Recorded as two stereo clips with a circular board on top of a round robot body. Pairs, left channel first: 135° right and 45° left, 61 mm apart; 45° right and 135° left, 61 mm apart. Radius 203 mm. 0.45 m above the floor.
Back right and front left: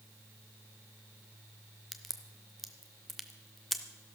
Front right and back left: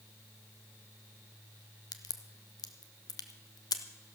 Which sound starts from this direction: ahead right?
A crack, at 1.9 s.